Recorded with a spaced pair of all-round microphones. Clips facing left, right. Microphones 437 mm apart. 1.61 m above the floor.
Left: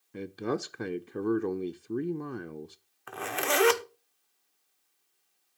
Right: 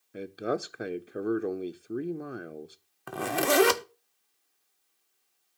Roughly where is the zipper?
Right.